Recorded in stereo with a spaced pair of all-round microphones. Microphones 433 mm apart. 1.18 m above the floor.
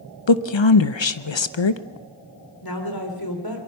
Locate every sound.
0.3 s a woman speaking: 90° left, 0.8 m
2.6 s a woman speaking: 55° left (ahead or behind), 3.5 m